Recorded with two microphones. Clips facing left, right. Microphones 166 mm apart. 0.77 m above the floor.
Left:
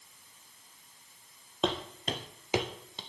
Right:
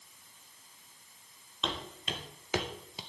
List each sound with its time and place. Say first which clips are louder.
1.6 s footsteps: left 7 dB; 55° left (ahead or behind), 1.4 m; by 3.0 s 10° right (ahead or behind), 0.9 m